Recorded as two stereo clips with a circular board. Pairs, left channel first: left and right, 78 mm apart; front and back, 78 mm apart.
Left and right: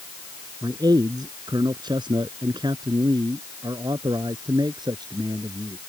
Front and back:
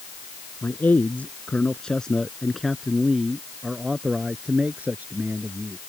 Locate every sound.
0.6 s a man speaking: 65° right; by 5.8 s 115° right